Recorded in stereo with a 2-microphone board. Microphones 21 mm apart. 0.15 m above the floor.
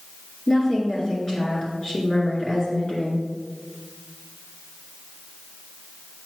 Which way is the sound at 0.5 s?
35° left (ahead or behind).